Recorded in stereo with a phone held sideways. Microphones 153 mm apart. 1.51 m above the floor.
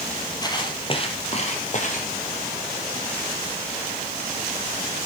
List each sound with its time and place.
0.4 s footsteps: 25° left (ahead or behind), 3 m; by 2.1 s 55° left (ahead or behind), 3 m